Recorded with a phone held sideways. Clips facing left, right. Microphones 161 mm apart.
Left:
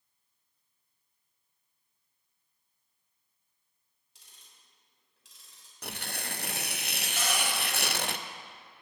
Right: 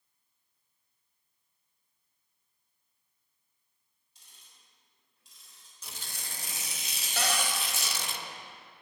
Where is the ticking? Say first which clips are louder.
Left 1 dB; 90° left, 3.5 m.